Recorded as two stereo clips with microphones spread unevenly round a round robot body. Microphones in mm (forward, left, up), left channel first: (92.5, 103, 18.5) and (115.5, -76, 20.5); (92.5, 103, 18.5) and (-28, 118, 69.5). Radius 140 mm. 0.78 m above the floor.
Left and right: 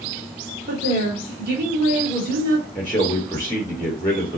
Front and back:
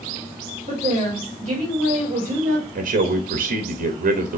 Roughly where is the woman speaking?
Behind right.